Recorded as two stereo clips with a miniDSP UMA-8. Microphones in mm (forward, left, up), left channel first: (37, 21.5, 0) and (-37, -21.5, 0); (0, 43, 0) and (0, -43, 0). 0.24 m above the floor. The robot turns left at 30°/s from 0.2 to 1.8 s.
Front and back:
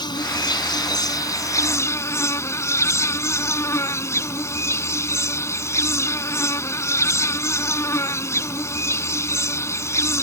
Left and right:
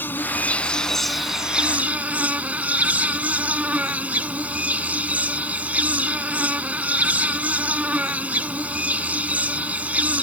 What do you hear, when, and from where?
0.0 s an insect: 30° left; by 10.2 s 20° right